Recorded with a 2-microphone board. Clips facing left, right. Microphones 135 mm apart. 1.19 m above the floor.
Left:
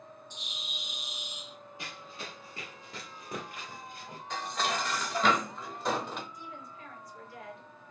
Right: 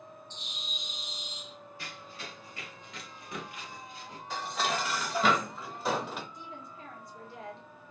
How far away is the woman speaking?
About 1.3 m.